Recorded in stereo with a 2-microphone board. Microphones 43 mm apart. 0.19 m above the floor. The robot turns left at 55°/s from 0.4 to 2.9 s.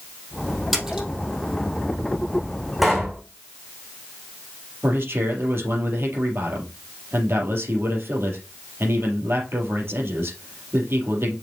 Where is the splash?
5° right (ahead or behind), 3.5 m; by 1.1 s 25° right (ahead or behind), 3.5 m.